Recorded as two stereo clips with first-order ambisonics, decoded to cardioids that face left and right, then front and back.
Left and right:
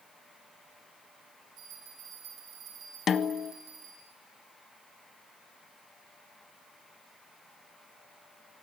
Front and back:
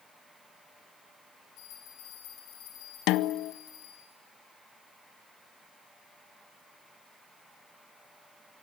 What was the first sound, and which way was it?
A bell, 35° right.